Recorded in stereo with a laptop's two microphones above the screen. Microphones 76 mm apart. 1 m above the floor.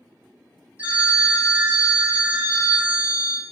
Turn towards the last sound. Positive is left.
turn(degrees=-20)  # may be behind; listen again after turning